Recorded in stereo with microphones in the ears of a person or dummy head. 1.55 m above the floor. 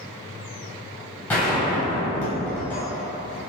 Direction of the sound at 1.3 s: 10° left (ahead or behind).